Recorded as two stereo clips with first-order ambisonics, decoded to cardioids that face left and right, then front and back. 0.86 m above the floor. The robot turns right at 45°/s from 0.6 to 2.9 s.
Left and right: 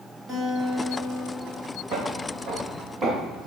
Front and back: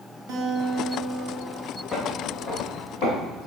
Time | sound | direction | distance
0.3 | a guitar | 155° right | 2.5 m
1.9 | footsteps | 65° right | 1.8 m